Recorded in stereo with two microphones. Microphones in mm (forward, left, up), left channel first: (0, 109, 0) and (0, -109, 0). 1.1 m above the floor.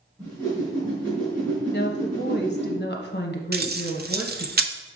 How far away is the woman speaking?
About 1.0 m.